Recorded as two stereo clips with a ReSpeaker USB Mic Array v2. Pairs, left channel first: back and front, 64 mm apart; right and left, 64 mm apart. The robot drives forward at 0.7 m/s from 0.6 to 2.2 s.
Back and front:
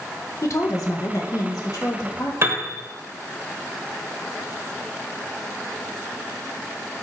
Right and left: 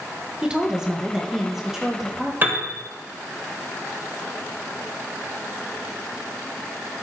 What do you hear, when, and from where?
0.4 s a woman speaking: 165° left, 1.2 m; by 2.3 s 175° left, 2 m
2.4 s a piano: 40° left, 1.3 m